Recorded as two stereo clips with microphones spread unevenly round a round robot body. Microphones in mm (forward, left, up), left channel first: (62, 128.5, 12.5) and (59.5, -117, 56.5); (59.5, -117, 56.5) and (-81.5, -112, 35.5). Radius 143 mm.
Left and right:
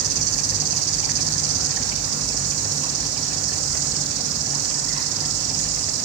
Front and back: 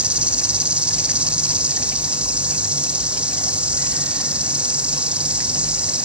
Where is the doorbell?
No doorbell in this recording.